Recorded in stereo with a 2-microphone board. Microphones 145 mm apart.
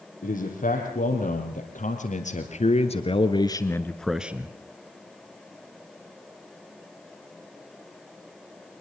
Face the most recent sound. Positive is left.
turn(degrees=-15)  # may be behind; listen again after turning